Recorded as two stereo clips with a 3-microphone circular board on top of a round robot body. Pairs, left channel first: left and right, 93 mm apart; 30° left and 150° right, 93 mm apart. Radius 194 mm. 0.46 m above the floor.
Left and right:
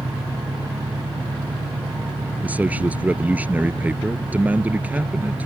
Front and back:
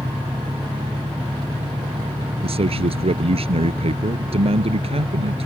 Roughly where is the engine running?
Right.